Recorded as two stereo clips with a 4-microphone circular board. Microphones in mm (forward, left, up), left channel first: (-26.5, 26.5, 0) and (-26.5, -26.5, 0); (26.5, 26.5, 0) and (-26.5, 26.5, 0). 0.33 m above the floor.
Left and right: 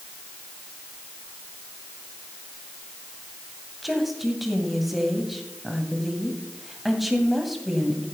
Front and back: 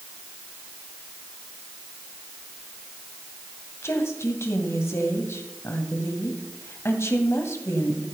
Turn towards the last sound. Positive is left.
turn(degrees=-5)